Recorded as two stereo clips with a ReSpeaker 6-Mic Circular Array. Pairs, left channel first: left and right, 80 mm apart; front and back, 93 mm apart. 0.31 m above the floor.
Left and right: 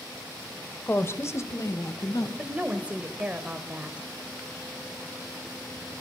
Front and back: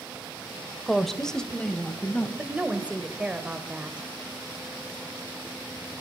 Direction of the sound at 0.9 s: 90° left.